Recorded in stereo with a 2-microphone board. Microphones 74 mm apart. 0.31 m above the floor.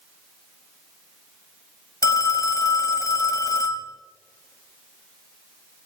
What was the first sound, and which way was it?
A phone ringing, 55° left (ahead or behind).